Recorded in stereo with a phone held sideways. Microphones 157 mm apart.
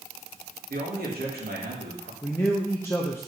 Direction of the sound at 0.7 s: 80° right.